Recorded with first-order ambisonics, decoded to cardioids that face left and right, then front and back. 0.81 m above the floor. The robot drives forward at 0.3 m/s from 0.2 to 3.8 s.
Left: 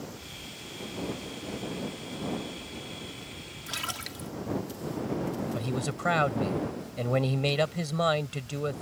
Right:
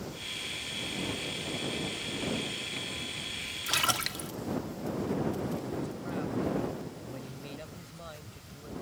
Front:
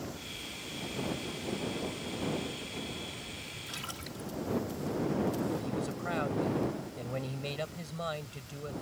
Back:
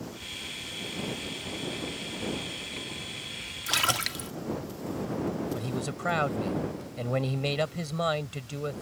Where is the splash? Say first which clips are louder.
Right 6 dB, back 19 dB; 155° right.